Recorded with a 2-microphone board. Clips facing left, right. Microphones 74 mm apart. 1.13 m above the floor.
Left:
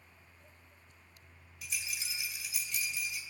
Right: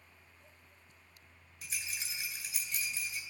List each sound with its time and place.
1.6 s a rattle: 40° right (ahead or behind), 2 m